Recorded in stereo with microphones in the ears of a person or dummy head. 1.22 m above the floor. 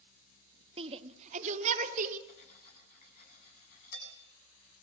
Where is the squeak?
I don't hear a squeak.